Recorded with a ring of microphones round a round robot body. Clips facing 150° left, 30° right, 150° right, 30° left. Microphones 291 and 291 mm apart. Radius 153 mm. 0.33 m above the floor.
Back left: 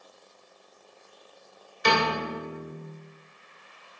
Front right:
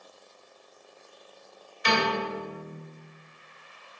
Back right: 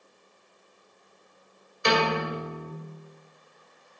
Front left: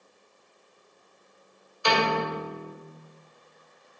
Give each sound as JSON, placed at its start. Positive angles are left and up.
{"t": 1.8, "sound": "a piano", "azimuth_deg": 150, "distance_m": 2.0}